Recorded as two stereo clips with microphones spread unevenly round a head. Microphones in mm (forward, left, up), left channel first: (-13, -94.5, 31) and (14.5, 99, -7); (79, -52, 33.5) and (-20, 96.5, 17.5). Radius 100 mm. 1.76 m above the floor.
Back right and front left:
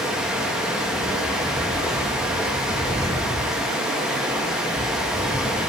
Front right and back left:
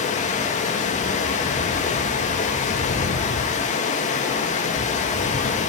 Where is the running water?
10° right, 2.5 m.